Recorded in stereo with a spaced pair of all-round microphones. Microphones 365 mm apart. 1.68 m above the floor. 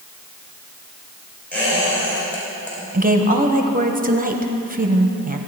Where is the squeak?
5° left (ahead or behind), 4.5 m.